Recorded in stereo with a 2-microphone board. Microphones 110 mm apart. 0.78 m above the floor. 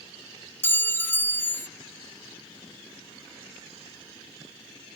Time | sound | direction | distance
0.6 | a clink | 20° left (ahead or behind) | ?